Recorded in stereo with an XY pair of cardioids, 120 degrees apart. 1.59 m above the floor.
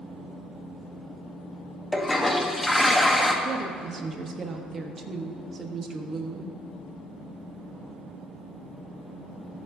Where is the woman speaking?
35° right, 0.9 m.